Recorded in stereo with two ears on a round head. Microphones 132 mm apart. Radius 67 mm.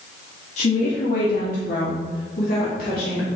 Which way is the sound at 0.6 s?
55° left (ahead or behind).